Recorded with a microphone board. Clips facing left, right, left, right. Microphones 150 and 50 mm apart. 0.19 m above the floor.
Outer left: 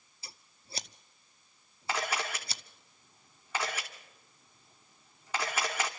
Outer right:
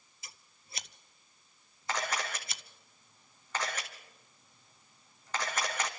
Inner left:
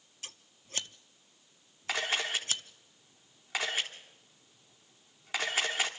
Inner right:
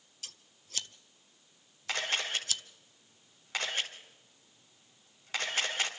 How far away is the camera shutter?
About 2.5 m.